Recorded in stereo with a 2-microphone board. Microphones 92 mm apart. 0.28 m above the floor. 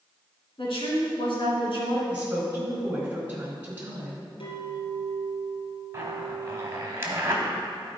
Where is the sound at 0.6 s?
70° left (ahead or behind), 2.5 m.